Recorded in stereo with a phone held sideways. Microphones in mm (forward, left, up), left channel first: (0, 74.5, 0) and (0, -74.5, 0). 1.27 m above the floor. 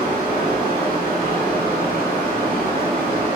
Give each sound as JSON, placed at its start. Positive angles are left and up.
{"t": 0.0, "sound": "a fan", "side_deg": -80, "distance_m": 2.0}